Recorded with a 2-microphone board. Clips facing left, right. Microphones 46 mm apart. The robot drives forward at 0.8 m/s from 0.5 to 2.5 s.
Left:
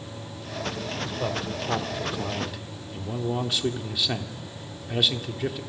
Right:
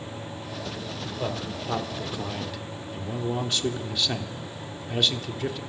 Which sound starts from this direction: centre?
A man speaking, at 1.2 s.